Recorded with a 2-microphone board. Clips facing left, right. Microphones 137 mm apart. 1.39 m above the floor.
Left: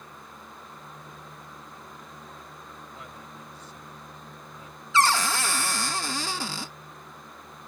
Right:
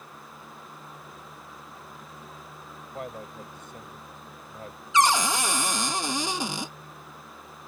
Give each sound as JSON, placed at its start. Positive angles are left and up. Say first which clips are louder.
{"t": 2.9, "sound": "a man speaking", "louder": "right 7 dB", "side_deg": -55}
{"t": 4.9, "sound": "a cupboard door", "louder": "right 1 dB", "side_deg": -15}